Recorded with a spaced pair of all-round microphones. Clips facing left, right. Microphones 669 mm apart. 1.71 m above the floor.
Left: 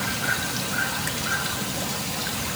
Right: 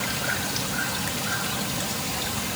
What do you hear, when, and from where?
Only background noise.